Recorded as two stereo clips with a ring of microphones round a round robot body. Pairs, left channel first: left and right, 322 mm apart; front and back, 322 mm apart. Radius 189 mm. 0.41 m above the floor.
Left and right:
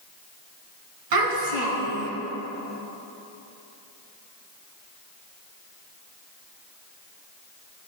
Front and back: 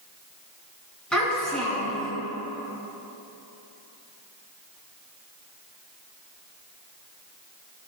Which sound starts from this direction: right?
A child speaking, at 1.1 s.